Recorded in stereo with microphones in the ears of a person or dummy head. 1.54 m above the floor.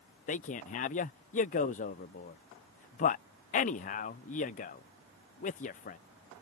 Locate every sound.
0.3 s a man speaking: 40° left (ahead or behind)